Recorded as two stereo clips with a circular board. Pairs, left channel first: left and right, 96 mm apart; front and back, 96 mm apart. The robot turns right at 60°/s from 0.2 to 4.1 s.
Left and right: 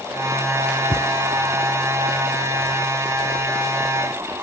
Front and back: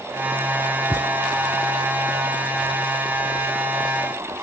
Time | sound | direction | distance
0.9 | a thud | 40° left | ?